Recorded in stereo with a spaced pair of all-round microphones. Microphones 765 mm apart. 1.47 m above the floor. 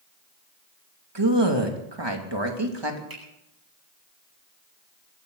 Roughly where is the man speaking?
Right.